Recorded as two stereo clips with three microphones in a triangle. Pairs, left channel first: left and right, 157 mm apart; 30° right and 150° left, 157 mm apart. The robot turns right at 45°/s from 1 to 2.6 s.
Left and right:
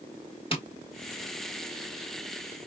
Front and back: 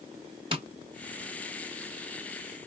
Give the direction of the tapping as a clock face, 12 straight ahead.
8 o'clock.